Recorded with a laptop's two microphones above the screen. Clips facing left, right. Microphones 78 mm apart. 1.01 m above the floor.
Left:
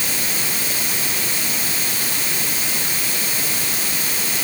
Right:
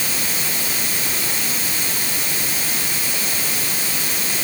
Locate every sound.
Only background noise.